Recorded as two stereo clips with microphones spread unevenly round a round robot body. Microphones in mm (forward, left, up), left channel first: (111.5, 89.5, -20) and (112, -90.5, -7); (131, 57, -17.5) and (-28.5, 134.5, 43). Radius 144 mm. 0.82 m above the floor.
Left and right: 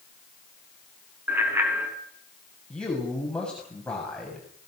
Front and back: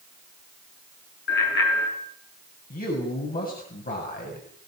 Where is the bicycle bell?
10° right, 6.5 m.